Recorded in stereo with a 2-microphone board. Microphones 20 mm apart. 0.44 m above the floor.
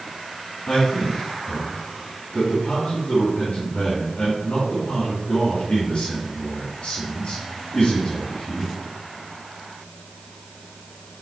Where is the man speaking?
70° left (ahead or behind), 2.5 m.